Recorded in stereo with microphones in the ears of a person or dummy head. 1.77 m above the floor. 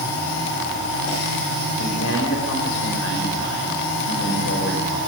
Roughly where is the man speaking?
Left.